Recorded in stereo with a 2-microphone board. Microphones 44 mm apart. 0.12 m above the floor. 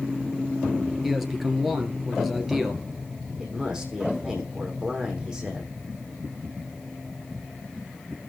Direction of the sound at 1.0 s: 5° right (ahead or behind).